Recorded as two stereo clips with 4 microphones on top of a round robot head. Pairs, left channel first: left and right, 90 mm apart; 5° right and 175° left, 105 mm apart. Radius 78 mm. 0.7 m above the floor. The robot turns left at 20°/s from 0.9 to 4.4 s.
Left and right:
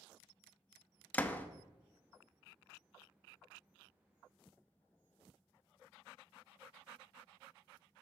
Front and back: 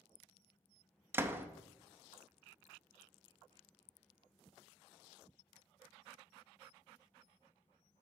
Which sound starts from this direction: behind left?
A door slam, at 1.1 s.